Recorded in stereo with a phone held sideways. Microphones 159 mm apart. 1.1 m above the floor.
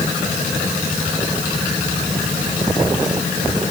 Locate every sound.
Only background noise.